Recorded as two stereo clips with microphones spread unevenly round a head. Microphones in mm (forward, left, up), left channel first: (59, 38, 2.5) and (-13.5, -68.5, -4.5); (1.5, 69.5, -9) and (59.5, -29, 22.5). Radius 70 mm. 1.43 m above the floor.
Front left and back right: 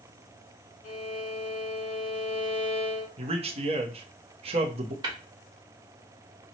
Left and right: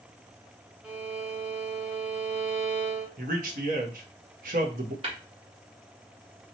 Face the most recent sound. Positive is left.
turn(degrees=-70)